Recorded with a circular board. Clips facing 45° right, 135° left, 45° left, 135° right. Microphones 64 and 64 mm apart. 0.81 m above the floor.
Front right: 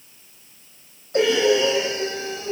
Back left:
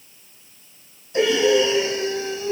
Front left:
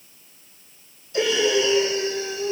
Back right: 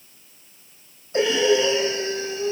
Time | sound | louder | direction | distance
1.1 | breathing | back left 1 dB, back right 2 dB | 75° right | 5 m